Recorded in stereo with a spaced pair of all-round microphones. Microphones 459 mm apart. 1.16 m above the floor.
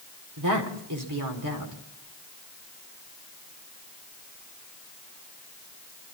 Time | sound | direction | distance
0.4 | a woman speaking | 40° right (ahead or behind) | 4 m